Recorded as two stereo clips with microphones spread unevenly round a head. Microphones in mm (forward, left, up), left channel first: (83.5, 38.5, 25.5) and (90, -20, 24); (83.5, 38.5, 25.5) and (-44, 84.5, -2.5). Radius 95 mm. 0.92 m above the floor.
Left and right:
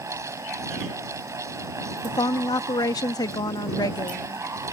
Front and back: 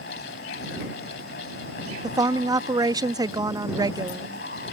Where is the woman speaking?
100° left.